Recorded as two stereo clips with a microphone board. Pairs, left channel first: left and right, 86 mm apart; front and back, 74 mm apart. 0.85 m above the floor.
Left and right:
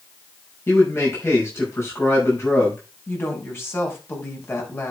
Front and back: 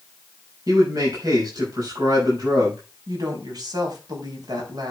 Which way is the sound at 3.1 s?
155° left.